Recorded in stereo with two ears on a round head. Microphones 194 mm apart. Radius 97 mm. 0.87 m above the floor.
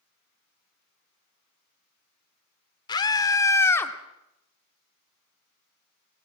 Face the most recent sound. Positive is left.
turn(degrees=10)  # may be behind; listen again after turning